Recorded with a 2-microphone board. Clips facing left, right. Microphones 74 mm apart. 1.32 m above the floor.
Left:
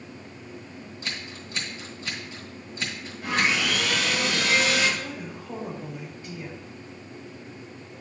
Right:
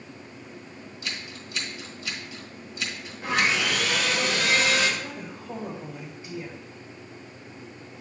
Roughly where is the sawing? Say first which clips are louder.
Even; right.